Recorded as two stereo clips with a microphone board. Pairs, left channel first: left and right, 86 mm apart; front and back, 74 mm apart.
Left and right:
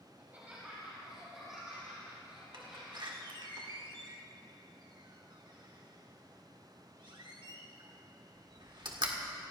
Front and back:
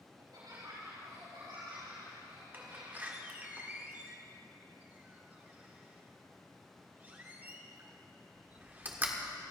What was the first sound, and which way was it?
Laughter, 160° right.